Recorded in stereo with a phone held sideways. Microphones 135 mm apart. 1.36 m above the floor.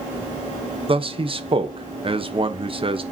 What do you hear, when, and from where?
0.9 s a man speaking: 40° right (ahead or behind), 1.1 m